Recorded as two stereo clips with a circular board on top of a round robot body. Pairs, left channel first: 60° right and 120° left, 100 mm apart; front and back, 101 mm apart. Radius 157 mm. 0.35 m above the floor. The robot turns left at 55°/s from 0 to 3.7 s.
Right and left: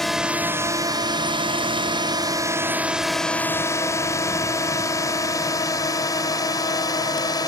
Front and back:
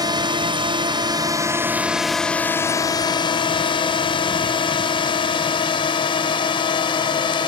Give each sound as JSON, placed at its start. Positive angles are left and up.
{"t": 0.0, "sound": "a drone", "azimuth_deg": -145}